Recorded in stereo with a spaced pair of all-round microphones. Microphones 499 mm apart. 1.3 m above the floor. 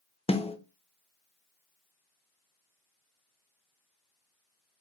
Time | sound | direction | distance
0.3 | a snare drum | 10° left (ahead or behind) | 1.1 m